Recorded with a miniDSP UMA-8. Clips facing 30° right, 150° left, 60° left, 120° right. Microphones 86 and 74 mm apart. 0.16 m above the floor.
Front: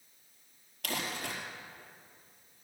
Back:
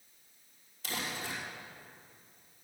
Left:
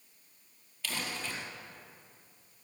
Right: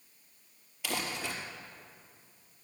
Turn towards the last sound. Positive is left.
turn(degrees=-40)